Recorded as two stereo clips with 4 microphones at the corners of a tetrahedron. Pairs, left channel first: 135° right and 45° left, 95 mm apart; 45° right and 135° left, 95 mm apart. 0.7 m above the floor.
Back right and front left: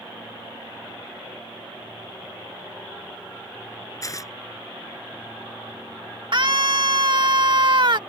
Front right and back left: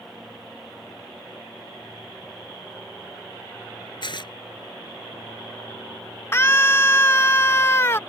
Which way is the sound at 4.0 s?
80° right.